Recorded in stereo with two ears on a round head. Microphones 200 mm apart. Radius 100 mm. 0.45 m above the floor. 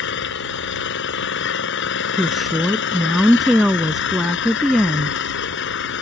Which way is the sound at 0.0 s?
60° left (ahead or behind).